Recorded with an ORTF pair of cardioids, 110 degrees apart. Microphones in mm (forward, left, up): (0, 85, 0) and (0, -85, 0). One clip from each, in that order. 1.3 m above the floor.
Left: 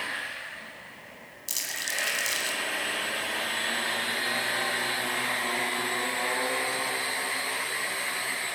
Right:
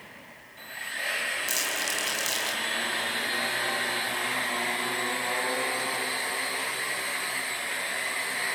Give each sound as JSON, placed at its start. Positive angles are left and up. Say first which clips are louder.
{"t": 1.5, "sound": "crumpling", "louder": "right 3 dB", "azimuth_deg": 0, "distance_m": 10.0}